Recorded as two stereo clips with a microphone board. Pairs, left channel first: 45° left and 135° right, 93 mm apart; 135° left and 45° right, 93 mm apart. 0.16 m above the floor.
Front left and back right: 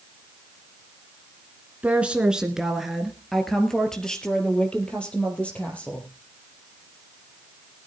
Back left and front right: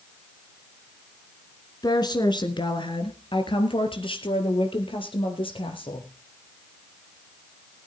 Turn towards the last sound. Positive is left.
turn(degrees=120)